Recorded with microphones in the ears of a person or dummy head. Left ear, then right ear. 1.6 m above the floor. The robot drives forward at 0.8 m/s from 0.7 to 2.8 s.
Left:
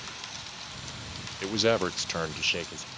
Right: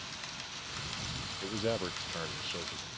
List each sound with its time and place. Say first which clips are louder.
1.4 s a man speaking: left 10 dB; 45° left (ahead or behind); by 2.9 s 40° left (ahead or behind)